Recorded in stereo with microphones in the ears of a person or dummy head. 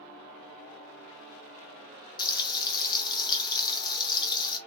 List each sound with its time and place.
2.2 s frying: 25° left (ahead or behind), 0.7 m